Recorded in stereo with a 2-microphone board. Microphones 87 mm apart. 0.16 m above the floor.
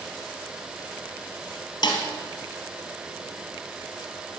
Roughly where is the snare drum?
Left.